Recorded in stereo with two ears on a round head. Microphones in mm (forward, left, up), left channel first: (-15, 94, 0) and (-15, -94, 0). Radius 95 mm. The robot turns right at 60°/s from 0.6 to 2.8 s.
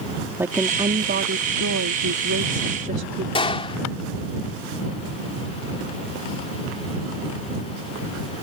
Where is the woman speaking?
170° right; by 3.2 s 35° right.